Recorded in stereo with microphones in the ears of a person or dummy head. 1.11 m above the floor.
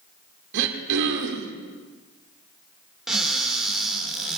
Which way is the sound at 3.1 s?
Centre (ahead or behind).